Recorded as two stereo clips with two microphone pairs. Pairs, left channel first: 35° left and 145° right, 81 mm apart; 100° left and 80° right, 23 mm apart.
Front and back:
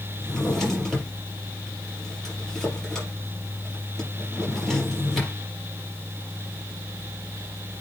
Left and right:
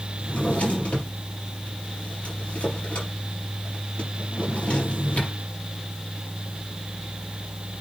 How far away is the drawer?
About 5 m.